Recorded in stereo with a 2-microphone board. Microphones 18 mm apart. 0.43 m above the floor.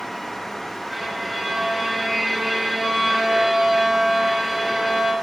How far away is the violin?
About 2.5 m.